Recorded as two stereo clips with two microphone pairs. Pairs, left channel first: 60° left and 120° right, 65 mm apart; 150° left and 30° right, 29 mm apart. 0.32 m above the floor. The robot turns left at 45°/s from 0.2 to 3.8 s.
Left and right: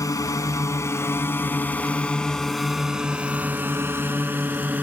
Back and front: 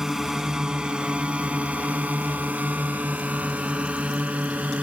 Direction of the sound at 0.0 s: 40° left.